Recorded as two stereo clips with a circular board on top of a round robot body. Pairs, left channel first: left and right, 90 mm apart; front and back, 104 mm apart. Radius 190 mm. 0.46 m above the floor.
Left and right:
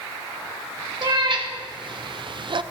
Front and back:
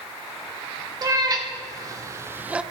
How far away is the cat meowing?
About 1.8 m.